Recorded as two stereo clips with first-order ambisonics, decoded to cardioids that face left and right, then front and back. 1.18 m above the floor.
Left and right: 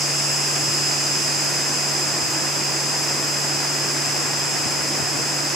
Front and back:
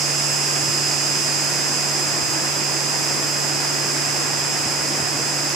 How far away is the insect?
About 1.2 m.